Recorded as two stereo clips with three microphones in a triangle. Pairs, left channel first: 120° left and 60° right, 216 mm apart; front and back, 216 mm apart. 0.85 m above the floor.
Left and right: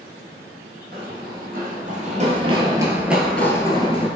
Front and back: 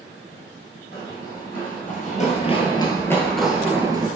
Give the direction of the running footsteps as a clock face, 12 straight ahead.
1 o'clock.